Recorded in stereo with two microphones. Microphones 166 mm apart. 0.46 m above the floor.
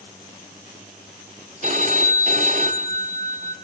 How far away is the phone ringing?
About 1.9 m.